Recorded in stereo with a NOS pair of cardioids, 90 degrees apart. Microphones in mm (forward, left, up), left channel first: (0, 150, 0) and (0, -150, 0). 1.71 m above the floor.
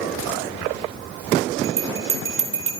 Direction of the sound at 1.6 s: 45° right.